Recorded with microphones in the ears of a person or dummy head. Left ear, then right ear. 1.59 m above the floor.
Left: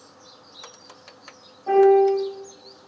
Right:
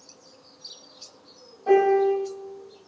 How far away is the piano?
About 2.0 m.